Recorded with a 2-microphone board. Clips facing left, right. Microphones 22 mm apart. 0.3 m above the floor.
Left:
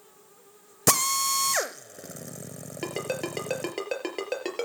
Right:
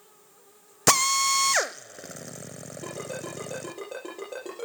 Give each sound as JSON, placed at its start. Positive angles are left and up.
{"t": 0.9, "sound": "a drill", "side_deg": -15, "distance_m": 0.5}
{"t": 2.8, "sound": "a ringtone", "side_deg": 80, "distance_m": 4.5}